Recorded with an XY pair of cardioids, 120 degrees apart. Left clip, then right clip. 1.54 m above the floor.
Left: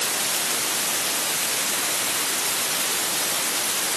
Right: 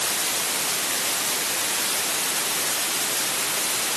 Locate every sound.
Only background noise.